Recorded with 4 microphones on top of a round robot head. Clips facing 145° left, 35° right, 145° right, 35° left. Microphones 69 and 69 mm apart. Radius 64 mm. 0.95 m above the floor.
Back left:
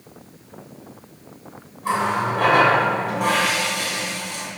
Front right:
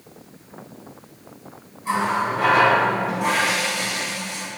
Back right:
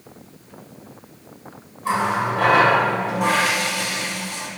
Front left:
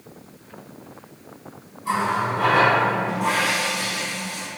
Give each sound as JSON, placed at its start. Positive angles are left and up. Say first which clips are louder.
{"t": 1.8, "sound": "a running tap", "louder": "even, back right 2 dB", "azimuth_deg": 180, "distance_m": 2.5}